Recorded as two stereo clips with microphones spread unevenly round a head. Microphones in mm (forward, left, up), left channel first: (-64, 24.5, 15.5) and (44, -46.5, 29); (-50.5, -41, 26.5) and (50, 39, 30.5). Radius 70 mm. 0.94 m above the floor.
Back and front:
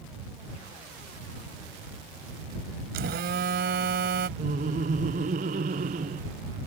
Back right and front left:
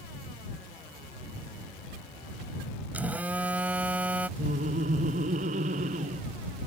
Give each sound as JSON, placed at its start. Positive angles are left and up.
{"t": 2.9, "sound": "a phone buzzing", "azimuth_deg": -40}
{"t": 4.4, "sound": "laughter", "azimuth_deg": 5}